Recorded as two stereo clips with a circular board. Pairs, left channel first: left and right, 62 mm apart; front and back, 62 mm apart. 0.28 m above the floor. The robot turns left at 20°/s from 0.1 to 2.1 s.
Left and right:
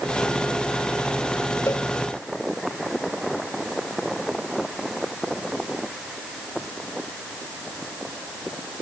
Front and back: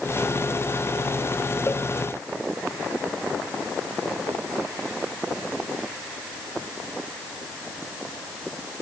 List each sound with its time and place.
1.7 s a cowbell: 50° left; by 1.9 s 45° left